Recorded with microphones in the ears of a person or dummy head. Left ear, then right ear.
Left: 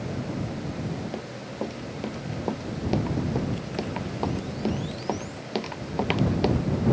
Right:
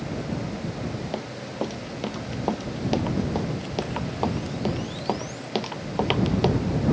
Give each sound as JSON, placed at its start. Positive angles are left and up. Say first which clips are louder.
{"t": 1.1, "sound": "running footsteps", "louder": "right 3 dB", "side_deg": -20}